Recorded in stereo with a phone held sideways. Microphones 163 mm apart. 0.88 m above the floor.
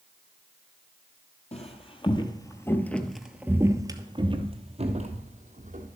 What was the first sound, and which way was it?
Footsteps, 45° left (ahead or behind).